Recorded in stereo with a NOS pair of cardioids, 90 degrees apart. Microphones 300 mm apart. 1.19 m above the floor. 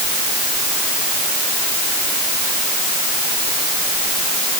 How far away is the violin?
I don't hear a violin.